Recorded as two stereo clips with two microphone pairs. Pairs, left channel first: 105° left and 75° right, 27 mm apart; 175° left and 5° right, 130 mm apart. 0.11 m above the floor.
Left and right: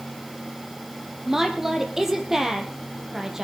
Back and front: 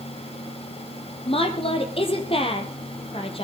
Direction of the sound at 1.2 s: 150° right.